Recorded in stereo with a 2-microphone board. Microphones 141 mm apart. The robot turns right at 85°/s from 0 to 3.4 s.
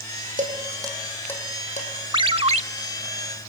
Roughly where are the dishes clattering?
Right.